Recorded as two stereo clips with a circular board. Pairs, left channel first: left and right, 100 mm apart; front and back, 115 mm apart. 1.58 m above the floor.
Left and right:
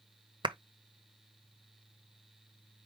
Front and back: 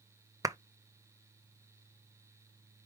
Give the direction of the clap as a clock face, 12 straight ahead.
4 o'clock.